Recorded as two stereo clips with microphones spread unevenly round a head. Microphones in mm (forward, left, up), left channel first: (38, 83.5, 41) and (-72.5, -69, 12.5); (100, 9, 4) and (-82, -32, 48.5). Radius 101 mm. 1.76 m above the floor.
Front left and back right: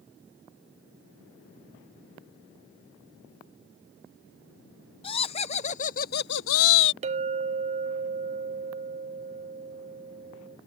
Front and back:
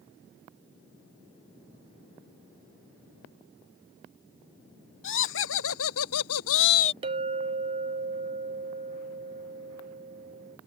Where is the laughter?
10° right; by 6.9 s 80° left.